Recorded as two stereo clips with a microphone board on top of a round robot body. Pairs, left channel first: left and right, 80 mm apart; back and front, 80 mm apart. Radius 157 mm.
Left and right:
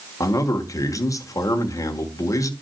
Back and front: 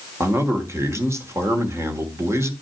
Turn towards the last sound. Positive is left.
turn(degrees=50)